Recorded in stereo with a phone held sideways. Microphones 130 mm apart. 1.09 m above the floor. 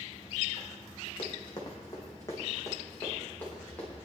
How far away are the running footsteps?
About 2.5 m.